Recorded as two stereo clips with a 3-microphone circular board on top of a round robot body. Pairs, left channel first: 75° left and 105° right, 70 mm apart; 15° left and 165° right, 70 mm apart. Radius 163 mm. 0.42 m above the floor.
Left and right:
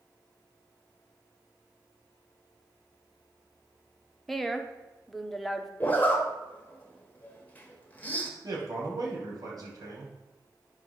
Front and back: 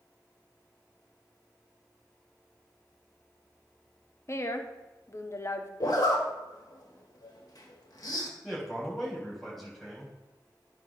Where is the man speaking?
70° right, 3.5 m.